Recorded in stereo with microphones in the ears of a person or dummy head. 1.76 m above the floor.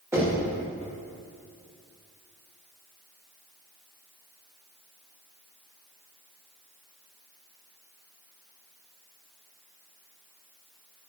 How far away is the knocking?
About 1.7 m.